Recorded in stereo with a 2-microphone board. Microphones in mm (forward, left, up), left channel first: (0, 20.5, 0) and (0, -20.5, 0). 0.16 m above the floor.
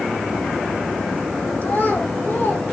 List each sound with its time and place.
1.6 s a child speaking: 55° left (ahead or behind), 5.5 m; by 2.6 s 60° left (ahead or behind), 6 m